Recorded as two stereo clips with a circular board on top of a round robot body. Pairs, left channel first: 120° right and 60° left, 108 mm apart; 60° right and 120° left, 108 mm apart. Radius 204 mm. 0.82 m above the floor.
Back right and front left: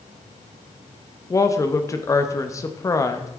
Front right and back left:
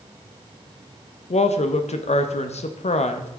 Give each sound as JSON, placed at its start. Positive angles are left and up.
{"t": 1.3, "sound": "a woman speaking", "azimuth_deg": -60, "distance_m": 1.0}